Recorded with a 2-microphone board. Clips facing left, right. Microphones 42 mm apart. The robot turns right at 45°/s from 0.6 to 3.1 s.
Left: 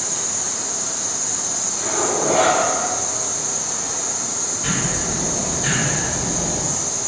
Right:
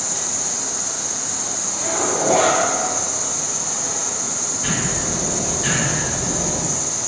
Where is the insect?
165° left, 0.8 m; by 7.1 s 80° right, 0.8 m.